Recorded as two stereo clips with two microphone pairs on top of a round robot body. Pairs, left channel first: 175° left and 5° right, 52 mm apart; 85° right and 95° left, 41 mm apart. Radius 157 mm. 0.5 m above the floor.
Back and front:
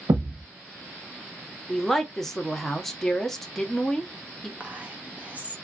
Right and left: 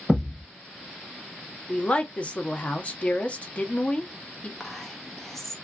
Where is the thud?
15° right, 0.7 m.